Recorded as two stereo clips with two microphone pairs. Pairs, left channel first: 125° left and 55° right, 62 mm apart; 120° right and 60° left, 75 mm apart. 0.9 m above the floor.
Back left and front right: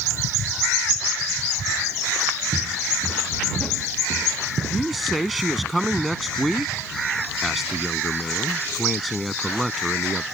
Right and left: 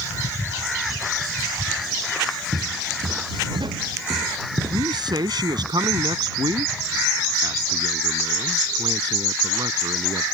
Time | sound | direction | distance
2.5 | footsteps | 50° left | ?
4.7 | a man speaking | 40° left | ?